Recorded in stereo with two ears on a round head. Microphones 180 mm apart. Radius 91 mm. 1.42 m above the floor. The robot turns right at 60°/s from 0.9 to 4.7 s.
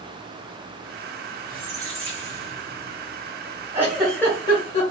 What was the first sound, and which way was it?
A squeak, 130° right.